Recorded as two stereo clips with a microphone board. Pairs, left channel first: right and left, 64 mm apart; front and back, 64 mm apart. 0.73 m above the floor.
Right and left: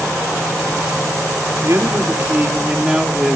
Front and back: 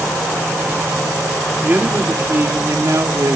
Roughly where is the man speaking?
Behind left.